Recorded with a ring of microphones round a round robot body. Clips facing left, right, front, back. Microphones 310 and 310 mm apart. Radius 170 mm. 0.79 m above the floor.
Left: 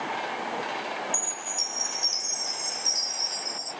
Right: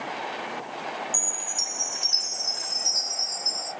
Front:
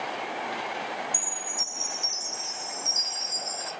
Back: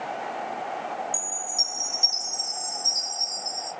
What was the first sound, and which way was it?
A chime, 170° right.